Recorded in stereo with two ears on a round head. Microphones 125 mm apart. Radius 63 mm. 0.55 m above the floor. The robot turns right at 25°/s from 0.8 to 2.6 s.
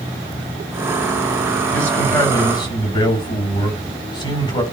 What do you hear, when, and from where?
1.7 s a man speaking: 5° left (ahead or behind), 4 m; by 4.6 s 30° left (ahead or behind), 4 m